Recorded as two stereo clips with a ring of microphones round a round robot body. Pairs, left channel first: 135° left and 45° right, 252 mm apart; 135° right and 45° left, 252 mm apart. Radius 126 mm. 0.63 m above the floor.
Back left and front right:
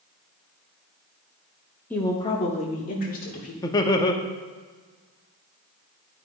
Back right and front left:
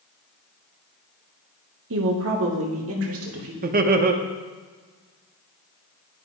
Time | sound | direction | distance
1.9 | a woman speaking | 55° left | 0.8 m
3.6 | laughter | 70° left | 0.7 m